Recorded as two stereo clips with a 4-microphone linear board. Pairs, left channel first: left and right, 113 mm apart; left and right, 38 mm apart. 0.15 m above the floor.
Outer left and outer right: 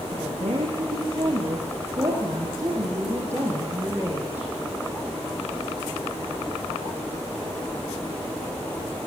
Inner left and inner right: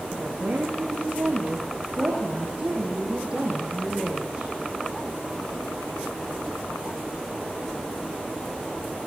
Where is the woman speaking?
50° right (ahead or behind), 6.5 m; by 4.5 s 15° right (ahead or behind), 7.5 m.